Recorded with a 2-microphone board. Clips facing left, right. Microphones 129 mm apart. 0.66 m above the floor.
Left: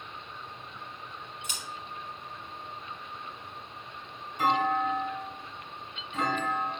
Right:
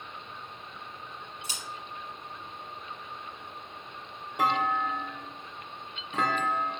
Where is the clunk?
75° right (ahead or behind), 0.8 m.